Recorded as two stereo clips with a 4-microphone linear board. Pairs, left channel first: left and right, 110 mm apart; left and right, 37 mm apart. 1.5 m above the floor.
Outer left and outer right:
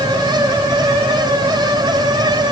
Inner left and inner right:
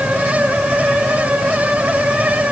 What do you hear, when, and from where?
Only background noise.